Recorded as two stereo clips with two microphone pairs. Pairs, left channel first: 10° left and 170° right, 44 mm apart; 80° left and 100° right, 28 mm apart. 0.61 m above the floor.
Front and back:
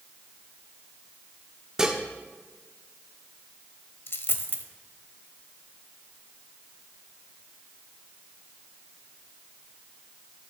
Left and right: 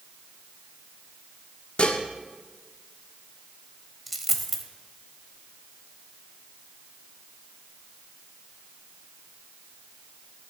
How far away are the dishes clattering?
About 0.9 m.